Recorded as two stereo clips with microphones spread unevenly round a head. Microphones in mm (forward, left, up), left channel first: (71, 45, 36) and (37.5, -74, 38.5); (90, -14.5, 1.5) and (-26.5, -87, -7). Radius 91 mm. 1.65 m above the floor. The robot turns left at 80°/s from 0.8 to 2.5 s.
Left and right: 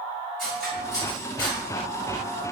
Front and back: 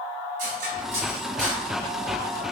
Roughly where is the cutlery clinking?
Behind.